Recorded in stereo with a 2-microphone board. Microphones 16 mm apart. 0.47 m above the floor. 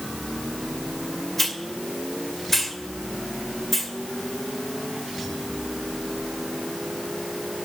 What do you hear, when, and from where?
1.4 s a hiss: 10° left (ahead or behind), 1.7 m